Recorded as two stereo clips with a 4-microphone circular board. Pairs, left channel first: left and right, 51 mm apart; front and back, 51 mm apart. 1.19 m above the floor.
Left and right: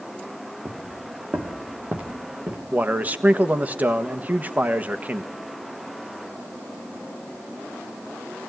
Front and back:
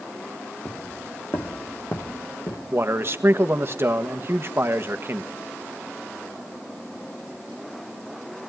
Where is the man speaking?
145° right, 1.5 m.